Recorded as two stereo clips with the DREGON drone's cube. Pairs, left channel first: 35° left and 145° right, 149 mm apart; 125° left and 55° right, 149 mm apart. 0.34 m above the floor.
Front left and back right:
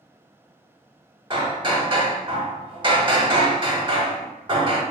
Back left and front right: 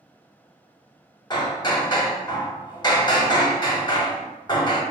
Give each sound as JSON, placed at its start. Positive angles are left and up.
{"t": 1.3, "sound": "hammering", "azimuth_deg": 170, "distance_m": 0.7}